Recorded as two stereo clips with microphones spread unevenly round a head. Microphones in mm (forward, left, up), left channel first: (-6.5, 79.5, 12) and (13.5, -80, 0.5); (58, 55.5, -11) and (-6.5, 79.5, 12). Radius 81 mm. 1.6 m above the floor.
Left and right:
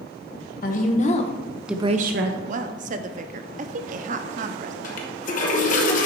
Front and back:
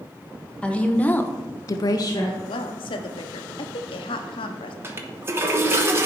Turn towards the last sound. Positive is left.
turn(degrees=130)